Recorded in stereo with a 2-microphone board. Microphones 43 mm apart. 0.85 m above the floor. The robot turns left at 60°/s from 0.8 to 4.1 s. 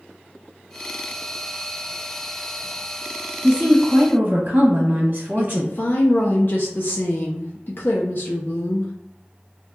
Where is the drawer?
I don't hear a drawer.